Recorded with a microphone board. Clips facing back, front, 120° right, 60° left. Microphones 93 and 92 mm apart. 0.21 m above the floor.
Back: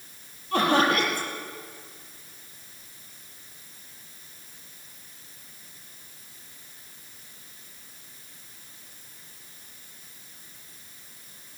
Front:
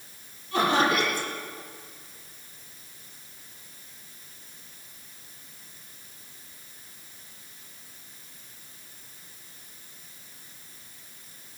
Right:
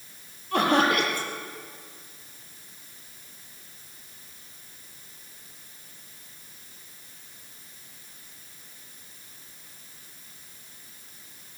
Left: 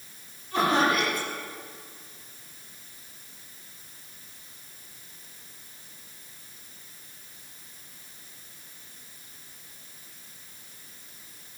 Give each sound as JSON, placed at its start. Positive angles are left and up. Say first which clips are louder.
{"t": 0.5, "sound": "laughter", "louder": "back 1 dB, right 1 dB", "azimuth_deg": -150, "distance_m": 6.0}